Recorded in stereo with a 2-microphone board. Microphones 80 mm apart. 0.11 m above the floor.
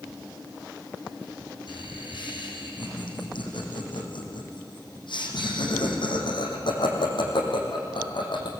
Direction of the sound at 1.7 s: 75° left (ahead or behind).